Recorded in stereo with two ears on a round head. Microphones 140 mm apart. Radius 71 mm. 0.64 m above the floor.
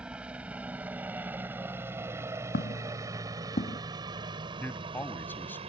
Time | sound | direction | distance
0.0 | a helicopter | 5° right (ahead or behind) | ?
2.5 | footsteps | 65° left (ahead or behind) | ?
4.6 | a man speaking | 10° left (ahead or behind) | ?